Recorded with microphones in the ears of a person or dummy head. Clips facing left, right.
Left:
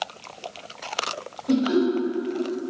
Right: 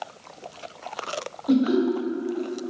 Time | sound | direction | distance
1.5 | laughter | 25° right (ahead or behind) | 1.0 m